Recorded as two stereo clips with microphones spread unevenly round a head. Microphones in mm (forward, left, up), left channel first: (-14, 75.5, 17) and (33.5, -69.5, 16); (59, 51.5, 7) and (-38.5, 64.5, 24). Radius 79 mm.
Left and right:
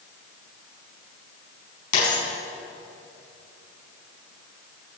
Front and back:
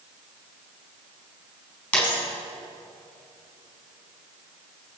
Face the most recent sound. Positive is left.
turn(degrees=70)